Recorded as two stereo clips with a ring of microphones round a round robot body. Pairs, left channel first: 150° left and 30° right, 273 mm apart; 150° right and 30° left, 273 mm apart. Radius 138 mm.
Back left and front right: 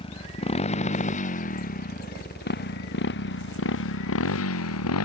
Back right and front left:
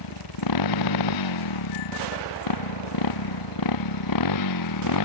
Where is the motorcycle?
140° right; by 5.0 s 175° right.